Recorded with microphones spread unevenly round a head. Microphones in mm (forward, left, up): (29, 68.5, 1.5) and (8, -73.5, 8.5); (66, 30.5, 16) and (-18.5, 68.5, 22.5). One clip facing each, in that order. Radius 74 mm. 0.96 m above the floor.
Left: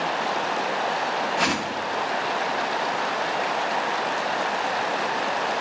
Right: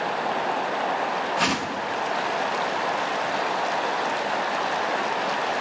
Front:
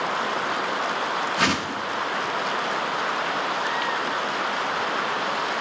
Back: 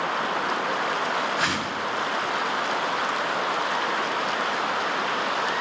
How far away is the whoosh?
About 0.7 m.